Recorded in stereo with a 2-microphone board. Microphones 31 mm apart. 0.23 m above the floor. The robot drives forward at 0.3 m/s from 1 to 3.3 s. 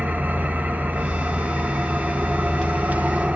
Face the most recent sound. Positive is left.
turn(degrees=-60)  # may be behind; listen again after turning